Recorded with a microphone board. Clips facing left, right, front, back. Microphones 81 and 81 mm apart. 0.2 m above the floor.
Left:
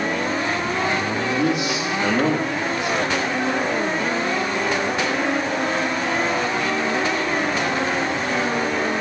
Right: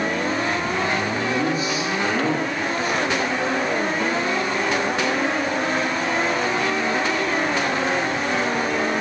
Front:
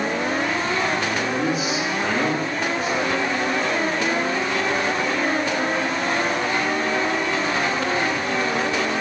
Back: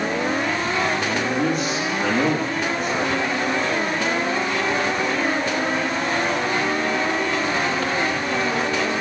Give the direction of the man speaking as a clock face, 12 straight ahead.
9 o'clock.